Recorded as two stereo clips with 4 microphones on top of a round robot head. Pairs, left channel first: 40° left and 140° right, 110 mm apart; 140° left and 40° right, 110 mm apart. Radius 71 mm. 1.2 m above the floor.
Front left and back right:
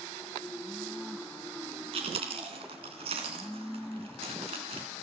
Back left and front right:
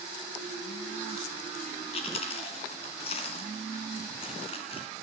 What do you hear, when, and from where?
1.9 s chewing: straight behind, 2.5 m